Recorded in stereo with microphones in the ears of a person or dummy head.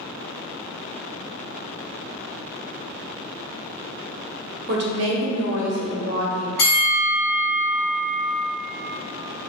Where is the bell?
45° left (ahead or behind), 1.2 m.